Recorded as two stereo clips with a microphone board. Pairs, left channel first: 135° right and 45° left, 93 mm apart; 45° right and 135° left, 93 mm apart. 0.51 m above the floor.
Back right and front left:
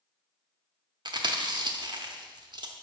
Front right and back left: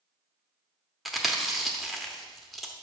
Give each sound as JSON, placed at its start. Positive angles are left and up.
{"t": 1.1, "sound": "chewing", "azimuth_deg": 45, "distance_m": 0.8}